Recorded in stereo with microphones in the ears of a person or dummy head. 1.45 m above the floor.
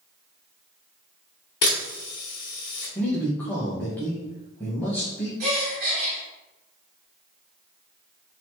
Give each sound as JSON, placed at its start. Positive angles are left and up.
{"t": 1.6, "sound": "a camera shutter", "side_deg": 30, "distance_m": 1.4}
{"t": 3.0, "sound": "a man speaking", "side_deg": 15, "distance_m": 1.0}
{"t": 5.4, "sound": "a gasp", "side_deg": -55, "distance_m": 1.3}